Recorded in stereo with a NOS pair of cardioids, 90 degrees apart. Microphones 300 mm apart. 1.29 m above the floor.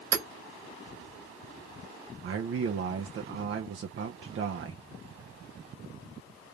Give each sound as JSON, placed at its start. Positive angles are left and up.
{"t": 0.1, "sound": "hammering", "azimuth_deg": -65, "distance_m": 2.5}
{"t": 2.2, "sound": "a man speaking", "azimuth_deg": -45, "distance_m": 0.9}